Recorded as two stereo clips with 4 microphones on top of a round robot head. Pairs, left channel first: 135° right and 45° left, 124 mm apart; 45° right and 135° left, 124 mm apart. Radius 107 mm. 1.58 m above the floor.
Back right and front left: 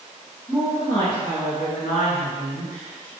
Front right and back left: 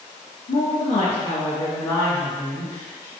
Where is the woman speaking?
40° right, 0.6 m; by 3.1 s 125° right, 1.9 m.